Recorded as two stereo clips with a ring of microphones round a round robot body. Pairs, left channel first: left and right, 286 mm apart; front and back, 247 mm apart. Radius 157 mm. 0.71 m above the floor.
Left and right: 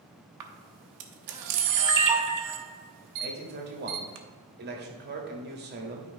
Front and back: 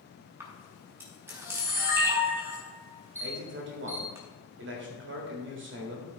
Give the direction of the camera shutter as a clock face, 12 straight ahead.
3 o'clock.